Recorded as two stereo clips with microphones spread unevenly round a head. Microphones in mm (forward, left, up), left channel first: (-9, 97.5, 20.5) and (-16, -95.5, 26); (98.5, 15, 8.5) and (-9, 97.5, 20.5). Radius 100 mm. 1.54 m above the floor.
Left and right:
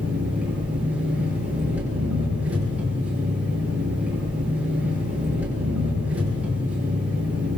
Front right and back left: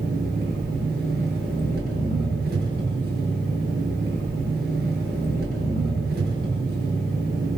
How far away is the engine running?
About 10 m.